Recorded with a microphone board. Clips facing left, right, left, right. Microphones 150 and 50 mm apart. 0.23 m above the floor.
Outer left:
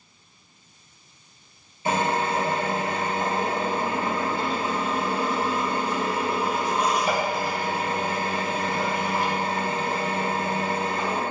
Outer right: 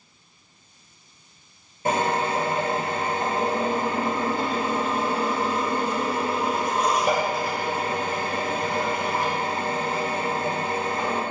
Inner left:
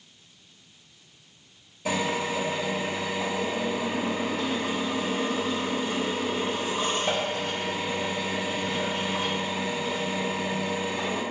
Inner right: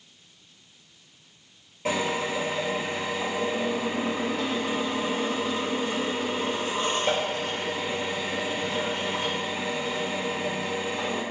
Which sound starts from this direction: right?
A drill, at 1.9 s.